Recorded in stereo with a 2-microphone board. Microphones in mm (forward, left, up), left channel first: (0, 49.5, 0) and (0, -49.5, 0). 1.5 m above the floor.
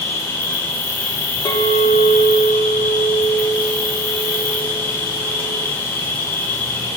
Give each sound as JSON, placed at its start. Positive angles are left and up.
{"t": 0.0, "sound": "an insect", "side_deg": 25, "distance_m": 2.5}
{"t": 1.4, "sound": "a clink", "side_deg": 40, "distance_m": 1.0}